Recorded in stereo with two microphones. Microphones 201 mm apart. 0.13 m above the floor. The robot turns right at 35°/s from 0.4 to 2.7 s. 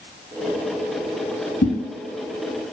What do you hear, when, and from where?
1.6 s a whoosh: 55° left (ahead or behind), 1.2 m; by 1.7 s 60° left (ahead or behind), 1.2 m